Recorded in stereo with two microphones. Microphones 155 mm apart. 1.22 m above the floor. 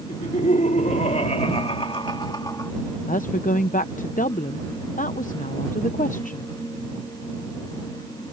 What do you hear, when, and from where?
0.1 s laughter: 60° left (ahead or behind); by 2.7 s 20° left (ahead or behind)
3.1 s a woman speaking: 60° left (ahead or behind)